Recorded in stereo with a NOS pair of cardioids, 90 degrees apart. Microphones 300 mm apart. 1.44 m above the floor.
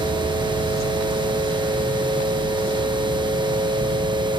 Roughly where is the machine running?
Ahead.